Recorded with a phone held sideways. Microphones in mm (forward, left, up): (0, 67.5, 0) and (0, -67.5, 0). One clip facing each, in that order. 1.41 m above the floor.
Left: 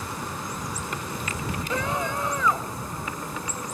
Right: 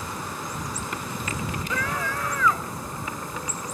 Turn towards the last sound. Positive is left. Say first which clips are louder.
# left 3 dB
turn(degrees=20)  # may be behind; listen again after turning